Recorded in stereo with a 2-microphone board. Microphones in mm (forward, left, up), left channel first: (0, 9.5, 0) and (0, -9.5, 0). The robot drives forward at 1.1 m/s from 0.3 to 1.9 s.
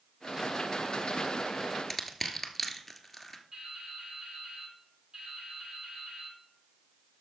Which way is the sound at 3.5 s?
45° right (ahead or behind).